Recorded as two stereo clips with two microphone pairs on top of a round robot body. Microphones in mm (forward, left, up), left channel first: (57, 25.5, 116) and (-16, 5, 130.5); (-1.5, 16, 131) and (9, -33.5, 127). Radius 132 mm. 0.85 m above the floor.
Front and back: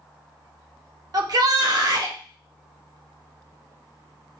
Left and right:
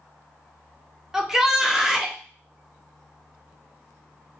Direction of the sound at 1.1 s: 150° right.